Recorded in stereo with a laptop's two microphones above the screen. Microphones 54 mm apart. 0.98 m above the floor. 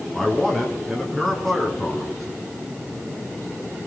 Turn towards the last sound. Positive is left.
turn(degrees=5)  # may be behind; listen again after turning